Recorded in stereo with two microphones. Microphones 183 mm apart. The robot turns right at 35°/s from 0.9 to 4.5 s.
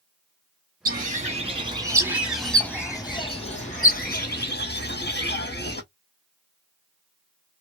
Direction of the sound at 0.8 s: 55° right.